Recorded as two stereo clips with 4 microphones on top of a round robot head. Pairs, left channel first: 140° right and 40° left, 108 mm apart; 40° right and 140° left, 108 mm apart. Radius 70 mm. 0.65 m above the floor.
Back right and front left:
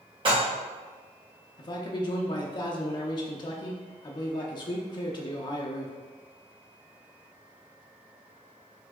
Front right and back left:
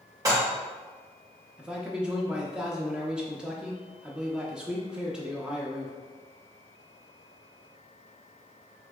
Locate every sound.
0.2 s dishes clattering: 80° left, 1.6 m
1.6 s a man speaking: 140° right, 0.6 m